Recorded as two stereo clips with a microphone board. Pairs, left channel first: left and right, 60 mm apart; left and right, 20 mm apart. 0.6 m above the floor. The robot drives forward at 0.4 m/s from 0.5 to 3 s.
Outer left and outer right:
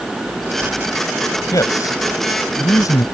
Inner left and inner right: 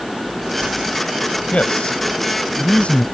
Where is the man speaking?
75° left (ahead or behind).